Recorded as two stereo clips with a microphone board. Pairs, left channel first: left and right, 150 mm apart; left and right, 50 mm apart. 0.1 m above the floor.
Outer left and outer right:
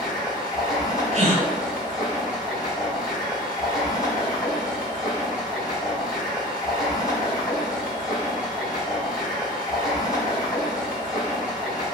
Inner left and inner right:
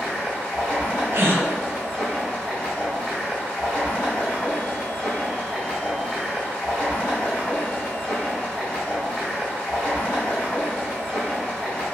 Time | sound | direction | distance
0.0 | running water | 25° left (ahead or behind) | 1.9 m
1.1 | a gasp | 45° right (ahead or behind) | 1.7 m